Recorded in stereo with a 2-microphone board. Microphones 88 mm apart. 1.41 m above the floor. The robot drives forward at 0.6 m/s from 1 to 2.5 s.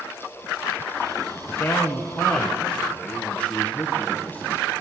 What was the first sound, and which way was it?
A man speaking, 30° left (ahead or behind).